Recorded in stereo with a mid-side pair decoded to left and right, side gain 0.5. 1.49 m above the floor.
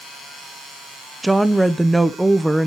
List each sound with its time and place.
1.2 s a woman speaking: 15° right, 0.8 m